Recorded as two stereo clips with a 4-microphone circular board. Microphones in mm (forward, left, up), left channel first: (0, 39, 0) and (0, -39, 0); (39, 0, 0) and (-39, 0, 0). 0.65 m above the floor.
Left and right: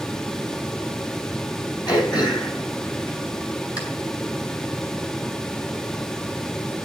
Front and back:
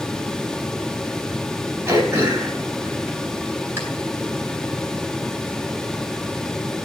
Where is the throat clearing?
120° left, 3.5 m.